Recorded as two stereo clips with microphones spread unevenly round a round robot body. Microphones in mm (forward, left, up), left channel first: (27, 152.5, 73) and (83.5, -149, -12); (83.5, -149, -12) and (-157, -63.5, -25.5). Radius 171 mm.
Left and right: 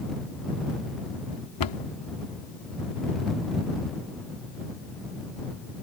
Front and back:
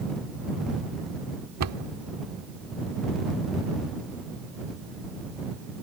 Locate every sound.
1.6 s a cupboard door: 130° left